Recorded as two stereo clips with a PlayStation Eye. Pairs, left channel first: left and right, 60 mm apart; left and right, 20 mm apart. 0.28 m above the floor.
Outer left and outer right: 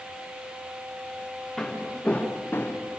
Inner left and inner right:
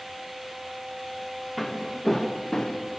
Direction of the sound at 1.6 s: 10° left (ahead or behind).